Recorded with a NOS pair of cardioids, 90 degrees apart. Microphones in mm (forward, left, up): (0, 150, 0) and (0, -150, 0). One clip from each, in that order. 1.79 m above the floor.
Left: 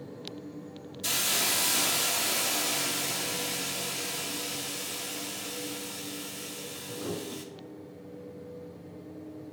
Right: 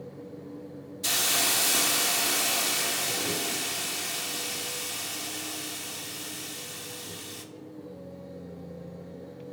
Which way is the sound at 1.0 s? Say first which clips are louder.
Right 2 dB; 15° right.